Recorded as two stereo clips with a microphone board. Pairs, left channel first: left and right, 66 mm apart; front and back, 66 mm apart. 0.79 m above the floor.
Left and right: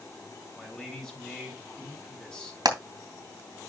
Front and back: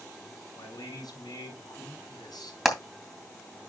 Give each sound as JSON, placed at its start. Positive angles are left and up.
{"t": 0.6, "sound": "a man speaking", "azimuth_deg": 15, "distance_m": 5.5}
{"t": 2.6, "sound": "hammering", "azimuth_deg": -95, "distance_m": 3.0}